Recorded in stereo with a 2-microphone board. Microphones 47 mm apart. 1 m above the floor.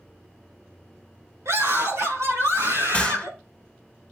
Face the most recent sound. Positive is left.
turn(degrees=20)  # may be behind; listen again after turning